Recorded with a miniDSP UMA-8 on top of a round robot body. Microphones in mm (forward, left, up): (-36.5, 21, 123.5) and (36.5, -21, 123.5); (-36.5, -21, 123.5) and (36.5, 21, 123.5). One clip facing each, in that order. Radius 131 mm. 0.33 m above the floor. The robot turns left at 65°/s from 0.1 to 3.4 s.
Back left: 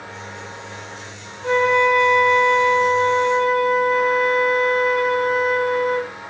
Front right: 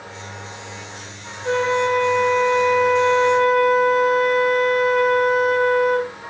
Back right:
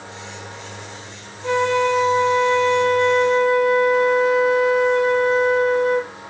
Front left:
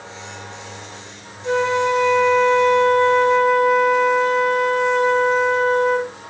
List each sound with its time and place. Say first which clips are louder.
1.4 s a flute: back left 2 dB, even; 170° right, 3 m; by 6.1 s 60° left, 3 m